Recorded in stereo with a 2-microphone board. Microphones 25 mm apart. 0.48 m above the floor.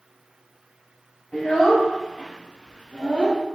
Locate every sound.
1.3 s a child speaking: 70° left (ahead or behind), 1.7 m; by 3.4 s 45° left (ahead or behind), 0.5 m